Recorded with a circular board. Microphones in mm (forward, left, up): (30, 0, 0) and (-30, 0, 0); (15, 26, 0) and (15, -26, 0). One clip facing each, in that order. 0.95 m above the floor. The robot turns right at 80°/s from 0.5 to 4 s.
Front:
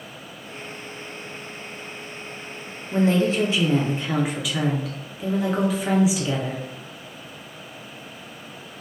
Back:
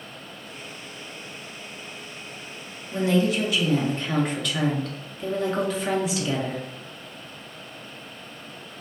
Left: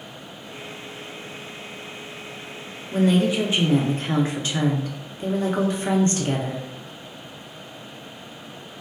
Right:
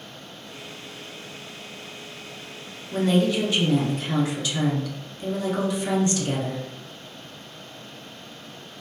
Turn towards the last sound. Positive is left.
turn(degrees=80)